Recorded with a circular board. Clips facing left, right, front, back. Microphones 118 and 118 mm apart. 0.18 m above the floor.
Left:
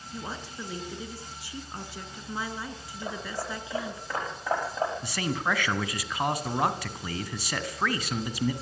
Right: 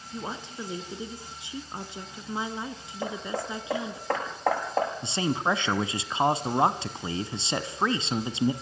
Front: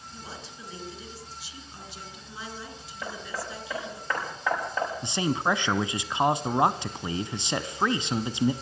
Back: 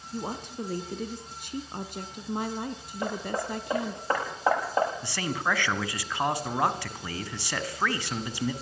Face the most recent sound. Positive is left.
turn(degrees=-50)